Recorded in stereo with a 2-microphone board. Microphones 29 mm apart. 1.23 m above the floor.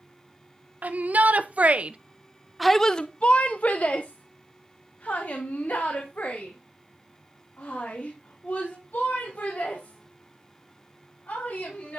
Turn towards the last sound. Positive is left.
turn(degrees=75)  # may be behind; listen again after turning